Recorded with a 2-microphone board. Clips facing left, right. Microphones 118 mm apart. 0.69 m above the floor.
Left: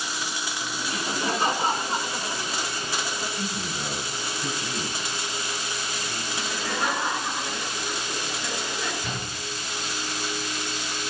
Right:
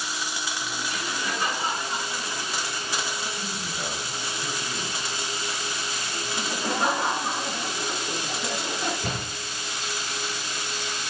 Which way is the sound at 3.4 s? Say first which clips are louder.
Left 2 dB; 5° left (ahead or behind).